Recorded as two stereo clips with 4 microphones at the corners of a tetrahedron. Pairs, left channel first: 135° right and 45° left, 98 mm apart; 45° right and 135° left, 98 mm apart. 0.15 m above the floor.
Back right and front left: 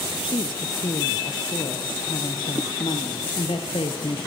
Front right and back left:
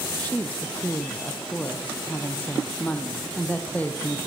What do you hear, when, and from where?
0.2 s a woman speaking: 120° right, 4 m